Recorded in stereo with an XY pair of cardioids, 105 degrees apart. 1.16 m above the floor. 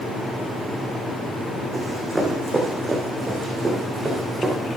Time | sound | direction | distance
1.7 | running footsteps | 15° right | 5 m